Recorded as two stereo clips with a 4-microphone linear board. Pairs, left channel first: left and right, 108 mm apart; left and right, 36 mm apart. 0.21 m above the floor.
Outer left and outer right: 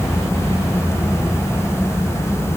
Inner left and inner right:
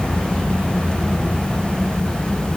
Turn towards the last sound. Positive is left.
No sound to turn to.